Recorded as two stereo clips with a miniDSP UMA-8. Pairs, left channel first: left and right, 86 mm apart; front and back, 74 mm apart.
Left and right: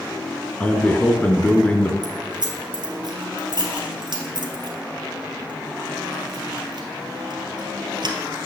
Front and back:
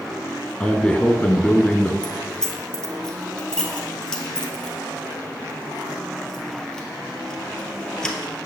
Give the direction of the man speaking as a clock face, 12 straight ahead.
10 o'clock.